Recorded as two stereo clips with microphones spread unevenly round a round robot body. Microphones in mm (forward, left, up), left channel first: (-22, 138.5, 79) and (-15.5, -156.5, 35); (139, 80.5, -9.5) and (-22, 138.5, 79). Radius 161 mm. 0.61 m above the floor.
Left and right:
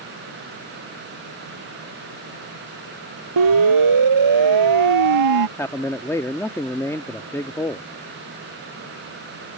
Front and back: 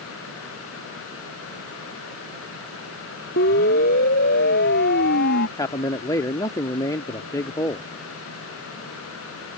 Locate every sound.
3.4 s a siren: 70° right
5.6 s a man speaking: 5° left